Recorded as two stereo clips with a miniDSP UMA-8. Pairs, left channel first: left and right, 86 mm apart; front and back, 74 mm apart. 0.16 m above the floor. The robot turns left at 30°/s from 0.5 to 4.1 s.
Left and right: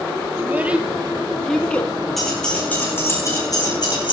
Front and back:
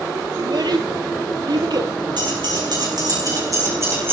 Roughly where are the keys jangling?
Behind.